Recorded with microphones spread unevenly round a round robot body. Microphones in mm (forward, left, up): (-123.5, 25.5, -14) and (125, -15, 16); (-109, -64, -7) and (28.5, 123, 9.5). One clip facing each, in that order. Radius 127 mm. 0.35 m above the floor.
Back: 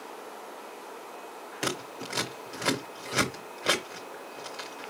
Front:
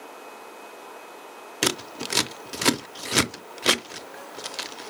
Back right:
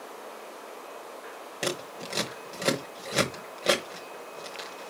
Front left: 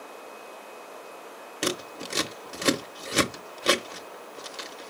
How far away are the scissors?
About 0.7 m.